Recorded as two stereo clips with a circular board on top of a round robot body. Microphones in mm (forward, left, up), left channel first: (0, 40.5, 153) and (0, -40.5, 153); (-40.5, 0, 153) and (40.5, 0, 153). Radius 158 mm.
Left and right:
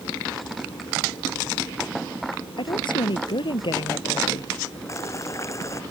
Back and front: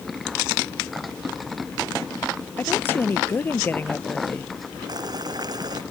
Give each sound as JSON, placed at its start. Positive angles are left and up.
{"t": 2.6, "sound": "a woman speaking", "azimuth_deg": 115}
{"t": 4.9, "sound": "boiling", "azimuth_deg": 35}